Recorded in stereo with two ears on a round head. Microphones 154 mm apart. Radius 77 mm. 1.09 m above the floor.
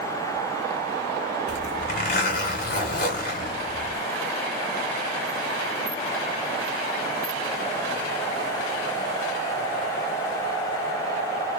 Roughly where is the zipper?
Left.